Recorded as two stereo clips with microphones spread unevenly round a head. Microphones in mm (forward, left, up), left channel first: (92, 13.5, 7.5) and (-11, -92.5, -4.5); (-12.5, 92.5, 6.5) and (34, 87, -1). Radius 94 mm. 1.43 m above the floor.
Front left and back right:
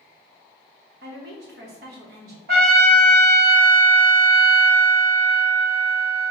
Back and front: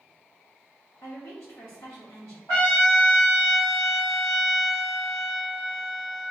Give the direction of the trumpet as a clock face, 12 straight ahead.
4 o'clock.